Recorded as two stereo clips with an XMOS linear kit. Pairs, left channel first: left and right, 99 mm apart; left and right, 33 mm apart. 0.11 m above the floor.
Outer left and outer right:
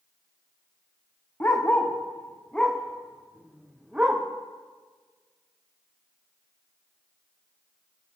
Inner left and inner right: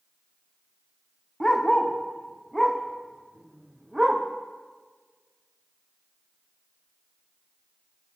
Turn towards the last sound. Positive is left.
turn(degrees=-15)  # may be behind; listen again after turning